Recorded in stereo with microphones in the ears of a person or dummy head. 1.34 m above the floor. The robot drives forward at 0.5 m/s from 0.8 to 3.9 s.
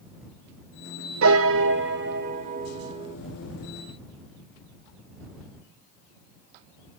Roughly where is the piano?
Right.